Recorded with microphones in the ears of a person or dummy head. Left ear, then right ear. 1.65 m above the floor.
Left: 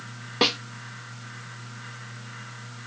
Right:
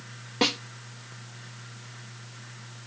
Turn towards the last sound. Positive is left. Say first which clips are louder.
# left 3 dB
turn(degrees=15)  # may be behind; listen again after turning